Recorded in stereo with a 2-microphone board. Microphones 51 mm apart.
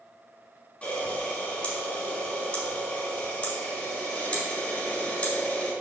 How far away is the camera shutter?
About 4.5 m.